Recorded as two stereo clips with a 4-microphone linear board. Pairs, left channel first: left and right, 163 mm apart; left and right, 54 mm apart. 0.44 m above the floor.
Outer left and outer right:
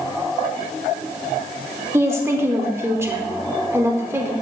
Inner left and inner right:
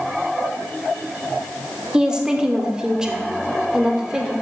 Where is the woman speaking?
15° right (ahead or behind), 0.8 m.